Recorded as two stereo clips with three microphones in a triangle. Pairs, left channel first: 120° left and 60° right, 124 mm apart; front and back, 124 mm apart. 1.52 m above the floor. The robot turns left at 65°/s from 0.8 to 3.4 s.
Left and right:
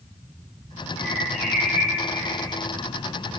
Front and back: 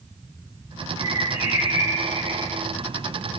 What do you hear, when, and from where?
1.0 s a bird: 40° left, 5 m; by 2.6 s 70° right, 5 m